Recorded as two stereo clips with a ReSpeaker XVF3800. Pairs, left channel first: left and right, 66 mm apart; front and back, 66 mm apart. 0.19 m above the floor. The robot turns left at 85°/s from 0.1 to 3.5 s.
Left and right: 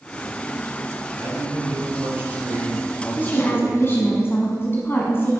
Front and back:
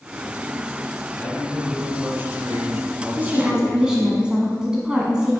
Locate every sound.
1.2 s a man speaking: 50° right, 1.5 m; by 4.2 s 115° left, 1.5 m
3.2 s a woman speaking: 140° left, 1.3 m; by 5.4 s 110° left, 1.3 m